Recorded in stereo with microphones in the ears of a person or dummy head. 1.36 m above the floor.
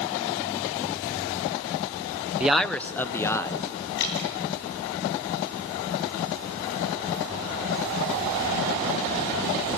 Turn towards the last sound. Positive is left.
turn(degrees=65)  # may be behind; listen again after turning